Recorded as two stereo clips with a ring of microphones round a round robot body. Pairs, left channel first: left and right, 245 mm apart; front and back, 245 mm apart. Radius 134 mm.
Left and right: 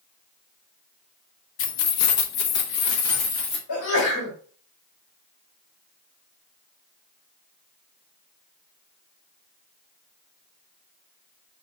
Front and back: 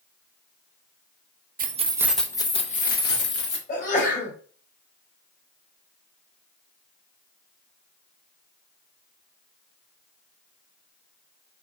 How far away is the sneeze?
About 3 m.